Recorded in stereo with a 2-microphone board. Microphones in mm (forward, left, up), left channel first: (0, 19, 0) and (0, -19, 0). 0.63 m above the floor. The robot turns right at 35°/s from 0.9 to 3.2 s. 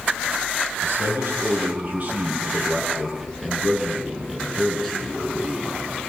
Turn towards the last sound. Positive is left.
turn(degrees=5)